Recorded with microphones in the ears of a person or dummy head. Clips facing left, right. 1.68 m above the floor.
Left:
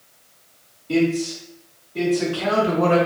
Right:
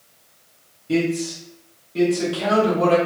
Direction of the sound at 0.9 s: 15° right (ahead or behind).